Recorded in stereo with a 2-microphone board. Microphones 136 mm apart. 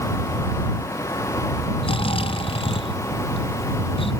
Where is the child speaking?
I don't hear a child speaking.